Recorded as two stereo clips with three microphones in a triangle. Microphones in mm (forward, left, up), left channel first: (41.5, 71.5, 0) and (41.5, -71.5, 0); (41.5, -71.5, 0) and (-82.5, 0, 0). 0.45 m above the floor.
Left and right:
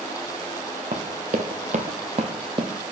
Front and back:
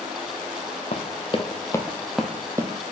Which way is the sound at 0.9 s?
60° right.